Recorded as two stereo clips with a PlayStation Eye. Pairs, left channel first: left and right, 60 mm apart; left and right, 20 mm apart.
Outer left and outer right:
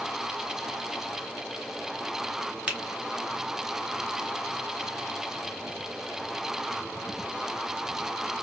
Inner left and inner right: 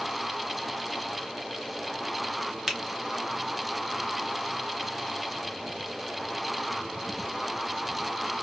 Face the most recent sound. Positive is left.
turn(degrees=-20)  # may be behind; listen again after turning